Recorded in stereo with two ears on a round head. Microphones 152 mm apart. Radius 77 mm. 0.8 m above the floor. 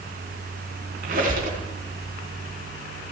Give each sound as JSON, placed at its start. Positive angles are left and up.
{"t": 1.0, "sound": "a squeak", "side_deg": -55, "distance_m": 3.5}